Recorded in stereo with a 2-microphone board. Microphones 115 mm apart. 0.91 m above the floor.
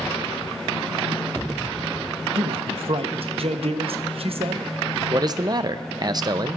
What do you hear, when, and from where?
2.4 s a man speaking: 60° right (ahead or behind), 0.8 m
5.1 s a man speaking: 35° right (ahead or behind), 0.5 m